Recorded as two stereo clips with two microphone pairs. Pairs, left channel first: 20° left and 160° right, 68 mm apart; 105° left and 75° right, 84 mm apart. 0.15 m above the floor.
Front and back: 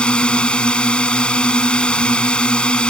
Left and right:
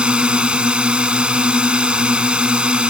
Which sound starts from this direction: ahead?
A drone, at 0.0 s.